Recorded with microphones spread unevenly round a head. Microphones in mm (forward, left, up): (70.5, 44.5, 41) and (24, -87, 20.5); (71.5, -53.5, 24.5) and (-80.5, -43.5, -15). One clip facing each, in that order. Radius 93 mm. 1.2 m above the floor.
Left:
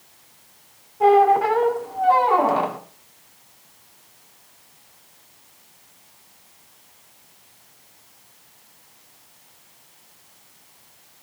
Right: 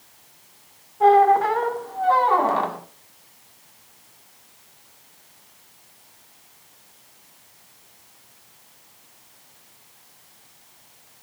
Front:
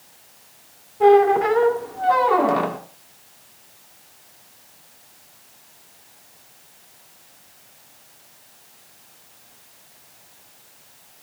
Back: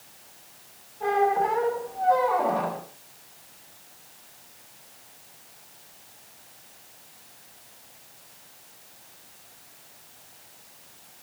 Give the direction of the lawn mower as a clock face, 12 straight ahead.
I don't hear a lawn mower.